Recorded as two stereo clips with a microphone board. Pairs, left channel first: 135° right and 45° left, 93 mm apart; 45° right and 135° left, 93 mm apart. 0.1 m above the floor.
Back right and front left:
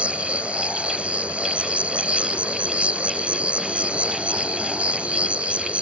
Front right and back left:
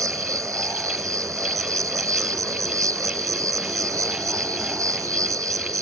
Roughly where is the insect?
Behind left.